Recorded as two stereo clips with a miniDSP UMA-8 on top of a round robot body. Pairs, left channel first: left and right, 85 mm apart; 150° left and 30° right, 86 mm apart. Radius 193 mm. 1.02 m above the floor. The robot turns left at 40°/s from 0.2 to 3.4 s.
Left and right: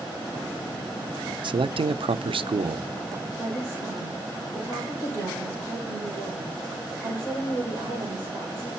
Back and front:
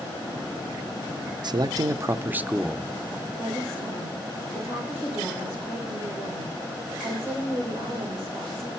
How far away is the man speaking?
About 0.6 m.